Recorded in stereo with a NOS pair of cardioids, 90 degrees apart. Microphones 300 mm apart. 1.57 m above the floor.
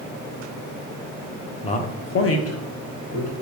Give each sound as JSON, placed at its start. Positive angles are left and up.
{"t": 1.6, "sound": "a man speaking", "azimuth_deg": 20, "distance_m": 0.7}